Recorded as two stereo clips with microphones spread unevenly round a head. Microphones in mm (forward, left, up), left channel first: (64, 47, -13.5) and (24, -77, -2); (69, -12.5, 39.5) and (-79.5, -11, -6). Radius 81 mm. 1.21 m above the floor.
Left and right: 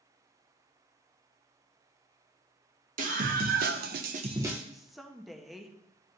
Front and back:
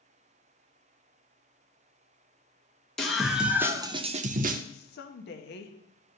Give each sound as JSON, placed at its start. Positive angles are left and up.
{"t": 3.0, "sound": "a scream", "azimuth_deg": -90, "distance_m": 1.4}
{"t": 4.7, "sound": "a woman speaking", "azimuth_deg": -15, "distance_m": 0.9}